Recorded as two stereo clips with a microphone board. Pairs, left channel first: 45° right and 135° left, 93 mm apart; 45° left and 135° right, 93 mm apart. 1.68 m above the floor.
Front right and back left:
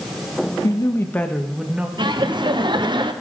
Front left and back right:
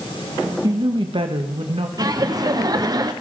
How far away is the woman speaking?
About 1.6 m.